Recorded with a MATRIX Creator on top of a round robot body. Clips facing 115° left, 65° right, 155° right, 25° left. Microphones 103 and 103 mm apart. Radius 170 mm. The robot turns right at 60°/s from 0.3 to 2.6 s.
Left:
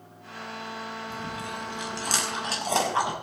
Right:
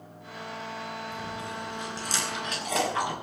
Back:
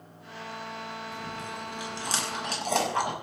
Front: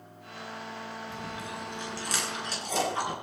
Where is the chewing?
80° left, 5.5 m; by 3.1 s 170° left, 5.5 m.